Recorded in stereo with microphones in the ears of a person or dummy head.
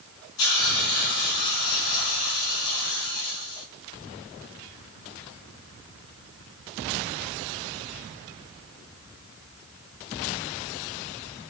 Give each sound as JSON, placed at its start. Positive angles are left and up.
{"t": 0.4, "sound": "a hiss", "side_deg": 80, "distance_m": 3.5}